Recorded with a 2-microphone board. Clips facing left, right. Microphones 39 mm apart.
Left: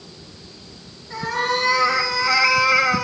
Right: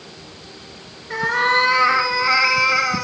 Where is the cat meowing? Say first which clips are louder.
Right 5 dB; 50° right (ahead or behind), 1.1 m; by 3.0 s 15° left (ahead or behind), 0.8 m.